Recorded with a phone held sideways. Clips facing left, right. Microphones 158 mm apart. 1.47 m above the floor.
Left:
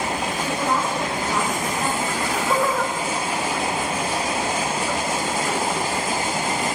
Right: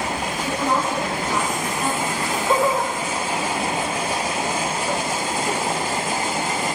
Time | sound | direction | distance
0.4 | a woman speaking | 5° right (ahead or behind) | 8 m
2.1 | laughter | 25° right (ahead or behind) | 3 m